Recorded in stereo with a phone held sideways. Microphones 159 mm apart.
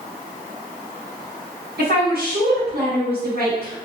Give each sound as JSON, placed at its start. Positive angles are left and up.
{"t": 1.8, "sound": "a woman speaking", "side_deg": -75, "distance_m": 1.3}